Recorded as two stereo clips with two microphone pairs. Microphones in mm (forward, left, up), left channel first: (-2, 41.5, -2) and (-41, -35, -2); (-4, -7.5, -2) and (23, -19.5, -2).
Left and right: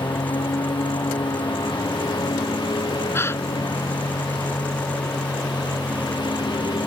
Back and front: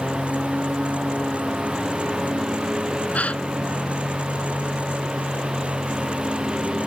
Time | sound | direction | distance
0.0 | a lawn mower | 35° left | ?
3.1 | a gasp | 125° left | ?